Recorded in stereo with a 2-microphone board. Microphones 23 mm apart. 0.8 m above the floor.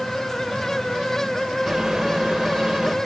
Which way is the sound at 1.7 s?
35° right (ahead or behind).